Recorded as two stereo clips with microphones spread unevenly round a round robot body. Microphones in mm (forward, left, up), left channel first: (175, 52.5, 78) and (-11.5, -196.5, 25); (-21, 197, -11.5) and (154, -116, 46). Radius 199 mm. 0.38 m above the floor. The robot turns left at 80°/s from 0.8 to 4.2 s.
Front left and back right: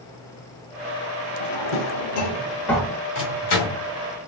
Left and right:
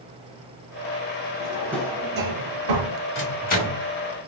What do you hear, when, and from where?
1.4 s a drawer: 65° left, 0.8 m; by 3.0 s 60° right, 0.8 m
3.1 s a microwave: 105° left, 1.4 m; by 3.8 s 50° left, 1.4 m